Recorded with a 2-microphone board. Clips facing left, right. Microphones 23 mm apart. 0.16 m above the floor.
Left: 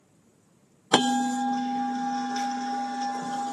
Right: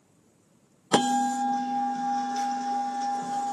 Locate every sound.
0.9 s a bell: 35° left (ahead or behind), 0.6 m